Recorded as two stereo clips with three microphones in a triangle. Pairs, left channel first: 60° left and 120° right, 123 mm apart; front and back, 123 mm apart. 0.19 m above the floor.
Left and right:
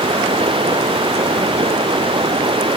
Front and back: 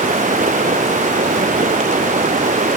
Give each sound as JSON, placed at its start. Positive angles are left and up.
{"t": 0.0, "sound": "running water", "azimuth_deg": -170}